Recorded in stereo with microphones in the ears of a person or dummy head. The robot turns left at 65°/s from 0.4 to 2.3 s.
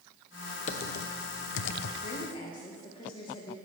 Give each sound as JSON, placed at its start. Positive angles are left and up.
{"t": 0.7, "sound": "typing on a keyboard", "side_deg": 40, "distance_m": 0.6}
{"t": 2.0, "sound": "a woman speaking", "side_deg": 50, "distance_m": 1.2}